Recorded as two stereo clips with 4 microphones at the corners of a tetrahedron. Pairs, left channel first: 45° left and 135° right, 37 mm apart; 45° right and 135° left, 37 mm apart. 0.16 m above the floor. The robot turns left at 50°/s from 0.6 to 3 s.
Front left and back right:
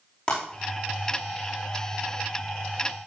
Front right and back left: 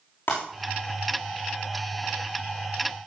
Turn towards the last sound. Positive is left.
turn(degrees=-140)